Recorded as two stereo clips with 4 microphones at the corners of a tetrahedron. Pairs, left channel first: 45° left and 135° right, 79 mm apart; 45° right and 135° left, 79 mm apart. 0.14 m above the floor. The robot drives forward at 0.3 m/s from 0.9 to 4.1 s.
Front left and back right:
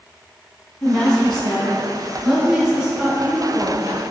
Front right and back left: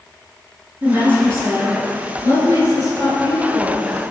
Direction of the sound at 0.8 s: 120° left.